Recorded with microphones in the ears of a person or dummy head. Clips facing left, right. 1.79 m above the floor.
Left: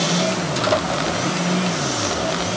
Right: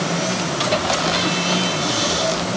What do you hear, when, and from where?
Only background noise.